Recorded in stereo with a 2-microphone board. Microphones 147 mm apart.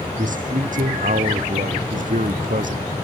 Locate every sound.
0.2 s a man speaking: 65° right (ahead or behind)